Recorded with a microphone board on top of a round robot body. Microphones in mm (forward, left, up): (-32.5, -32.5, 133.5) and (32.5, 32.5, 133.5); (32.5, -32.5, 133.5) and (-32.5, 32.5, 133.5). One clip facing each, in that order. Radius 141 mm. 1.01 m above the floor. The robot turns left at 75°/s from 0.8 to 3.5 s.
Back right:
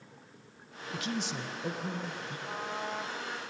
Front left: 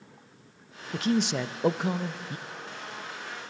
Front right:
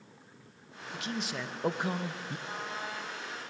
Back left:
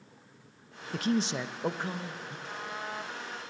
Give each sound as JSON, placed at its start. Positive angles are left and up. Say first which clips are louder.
{"t": 0.9, "sound": "a man speaking", "louder": "front left 9 dB, back left 7 dB", "azimuth_deg": 95, "distance_m": 0.8}
{"t": 2.5, "sound": "a trumpet", "louder": "back right 4 dB, back left 2 dB", "azimuth_deg": -125, "distance_m": 1.8}